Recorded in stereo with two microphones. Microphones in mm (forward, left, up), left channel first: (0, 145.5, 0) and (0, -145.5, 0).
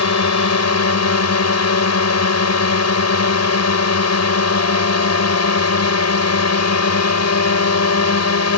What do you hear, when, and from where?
0.0 s a drone: 60° left (ahead or behind)